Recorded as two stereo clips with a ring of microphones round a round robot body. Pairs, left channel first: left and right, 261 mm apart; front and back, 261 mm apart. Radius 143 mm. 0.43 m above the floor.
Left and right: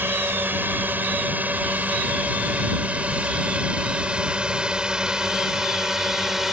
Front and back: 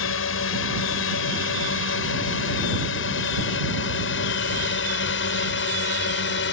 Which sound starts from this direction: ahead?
A drone, at 0.0 s.